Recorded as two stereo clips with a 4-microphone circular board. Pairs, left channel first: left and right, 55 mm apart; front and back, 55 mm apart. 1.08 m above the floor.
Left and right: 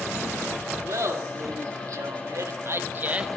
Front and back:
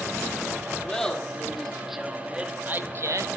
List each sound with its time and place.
0.8 s laughter: 80° right, 2.5 m; by 3.3 s 160° right, 1.0 m